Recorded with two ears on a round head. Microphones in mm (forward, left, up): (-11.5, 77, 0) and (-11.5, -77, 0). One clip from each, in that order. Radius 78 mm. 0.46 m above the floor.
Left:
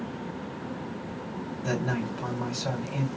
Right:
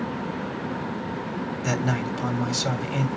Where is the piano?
I don't hear a piano.